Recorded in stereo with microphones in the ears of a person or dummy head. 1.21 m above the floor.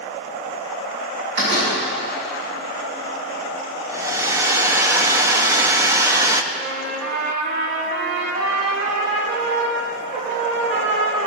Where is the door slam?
60° right (ahead or behind), 6 m.